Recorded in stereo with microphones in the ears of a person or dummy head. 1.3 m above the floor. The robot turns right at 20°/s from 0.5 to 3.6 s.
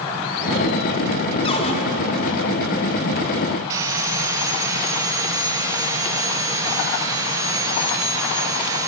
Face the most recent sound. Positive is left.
turn(degrees=-20)  # may be behind; listen again after turning